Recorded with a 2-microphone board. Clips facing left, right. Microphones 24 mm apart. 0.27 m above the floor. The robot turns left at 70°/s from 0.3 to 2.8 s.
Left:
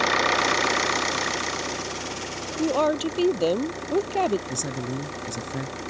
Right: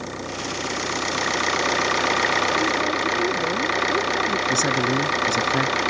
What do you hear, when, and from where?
0.0 s an engine running: 55° left; by 5.9 s 120° right
2.6 s a woman speaking: 50° left (ahead or behind); by 4.4 s 65° left (ahead or behind)
4.5 s a man speaking: 50° right (ahead or behind)